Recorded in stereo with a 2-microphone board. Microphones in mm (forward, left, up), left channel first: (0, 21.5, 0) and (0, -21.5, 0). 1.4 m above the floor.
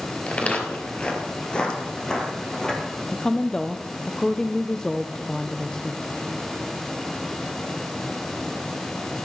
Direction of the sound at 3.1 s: 15° left (ahead or behind).